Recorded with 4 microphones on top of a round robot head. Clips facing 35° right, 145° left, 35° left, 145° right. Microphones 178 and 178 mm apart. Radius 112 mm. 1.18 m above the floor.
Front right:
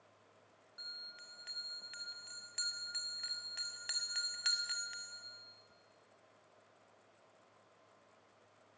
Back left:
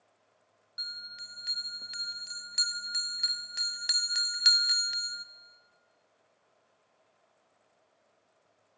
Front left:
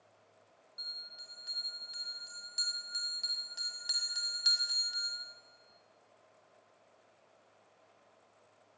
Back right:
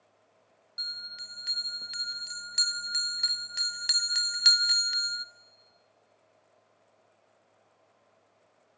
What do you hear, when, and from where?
0.8 s a bell: 170° right, 0.6 m